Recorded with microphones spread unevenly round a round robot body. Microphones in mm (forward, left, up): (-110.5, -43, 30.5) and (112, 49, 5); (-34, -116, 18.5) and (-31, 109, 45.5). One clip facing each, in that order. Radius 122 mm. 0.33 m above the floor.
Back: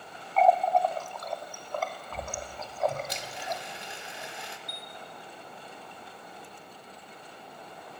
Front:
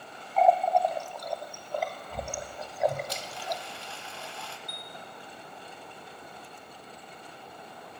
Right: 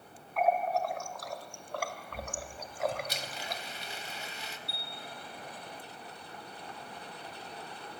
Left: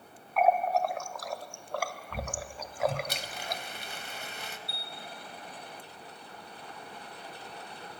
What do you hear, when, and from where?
0.4 s a running tap: 95° left, 1.2 m
3.1 s a blender: 130° left, 1.5 m
4.7 s a chime: 35° left, 3.5 m